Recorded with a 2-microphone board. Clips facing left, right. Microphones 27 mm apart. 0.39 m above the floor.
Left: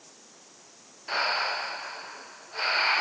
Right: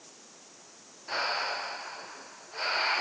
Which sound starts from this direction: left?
Breathing, at 1.1 s.